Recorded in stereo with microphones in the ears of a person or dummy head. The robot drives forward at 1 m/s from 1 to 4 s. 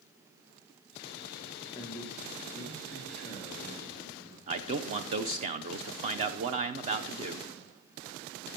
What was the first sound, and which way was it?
A man speaking, 20° left (ahead or behind).